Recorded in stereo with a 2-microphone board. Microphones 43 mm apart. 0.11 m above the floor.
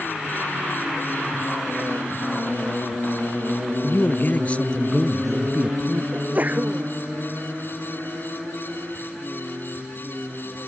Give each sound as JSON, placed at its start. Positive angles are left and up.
{"t": 3.8, "sound": "a man speaking", "side_deg": 55}
{"t": 6.1, "sound": "a sneeze", "side_deg": -40}